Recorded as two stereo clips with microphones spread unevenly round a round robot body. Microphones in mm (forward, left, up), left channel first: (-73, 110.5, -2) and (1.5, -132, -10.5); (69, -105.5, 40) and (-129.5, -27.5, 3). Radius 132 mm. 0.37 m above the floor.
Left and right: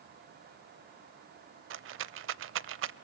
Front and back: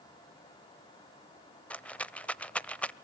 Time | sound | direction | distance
1.7 | a rattle | 110° right | 0.6 m